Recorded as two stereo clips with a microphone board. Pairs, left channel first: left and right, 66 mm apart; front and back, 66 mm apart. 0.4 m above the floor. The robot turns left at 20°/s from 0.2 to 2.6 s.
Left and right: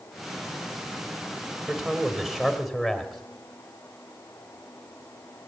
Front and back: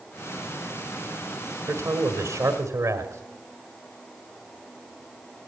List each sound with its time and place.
1.7 s a man speaking: 160° right, 1.6 m; by 3.2 s 175° right, 1.6 m